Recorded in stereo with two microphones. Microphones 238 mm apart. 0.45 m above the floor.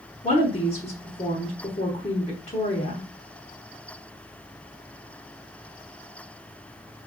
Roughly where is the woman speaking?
Left.